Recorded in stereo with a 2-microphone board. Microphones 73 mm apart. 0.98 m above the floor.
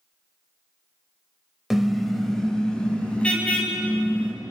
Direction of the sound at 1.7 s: 5° right (ahead or behind).